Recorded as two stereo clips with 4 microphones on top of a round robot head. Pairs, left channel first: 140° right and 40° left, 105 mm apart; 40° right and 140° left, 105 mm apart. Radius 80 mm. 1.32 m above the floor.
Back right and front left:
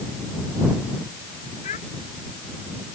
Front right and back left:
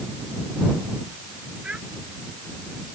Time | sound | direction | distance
1.6 | a child speaking | 140° right | ?